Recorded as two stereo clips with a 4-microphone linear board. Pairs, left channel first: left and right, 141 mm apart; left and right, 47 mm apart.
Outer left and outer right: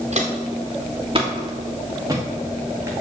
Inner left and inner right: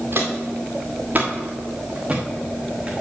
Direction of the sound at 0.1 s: 50° right (ahead or behind).